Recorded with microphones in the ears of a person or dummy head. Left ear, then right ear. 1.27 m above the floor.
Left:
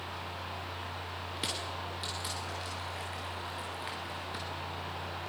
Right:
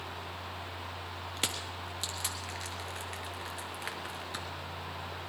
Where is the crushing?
30° right (ahead or behind), 1.3 m.